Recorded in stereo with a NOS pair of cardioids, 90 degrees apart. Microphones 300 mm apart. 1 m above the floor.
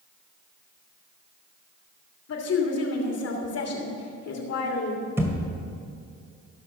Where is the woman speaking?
55° left, 2.5 m.